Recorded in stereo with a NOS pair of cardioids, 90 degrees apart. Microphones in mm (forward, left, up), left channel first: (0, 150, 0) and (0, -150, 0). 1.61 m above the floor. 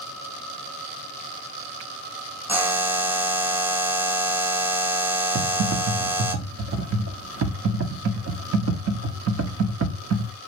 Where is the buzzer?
5° right, 1.4 m.